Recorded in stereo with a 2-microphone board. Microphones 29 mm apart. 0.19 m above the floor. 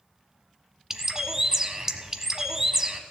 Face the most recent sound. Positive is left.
turn(degrees=-20)  # may be behind; listen again after turning